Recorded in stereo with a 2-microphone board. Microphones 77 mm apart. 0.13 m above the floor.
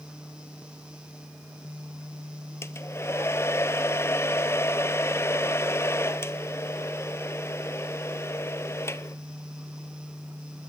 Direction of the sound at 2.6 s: 35° left (ahead or behind).